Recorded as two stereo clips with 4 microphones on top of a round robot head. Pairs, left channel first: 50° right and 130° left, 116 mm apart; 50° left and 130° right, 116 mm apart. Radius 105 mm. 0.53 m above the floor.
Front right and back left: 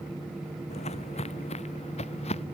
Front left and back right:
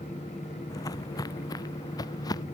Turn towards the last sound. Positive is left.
turn(degrees=-10)